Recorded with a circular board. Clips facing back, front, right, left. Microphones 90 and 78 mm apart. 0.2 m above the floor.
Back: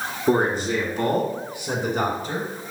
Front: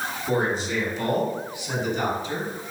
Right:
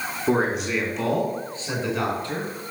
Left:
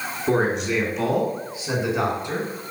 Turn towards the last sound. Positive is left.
turn(degrees=150)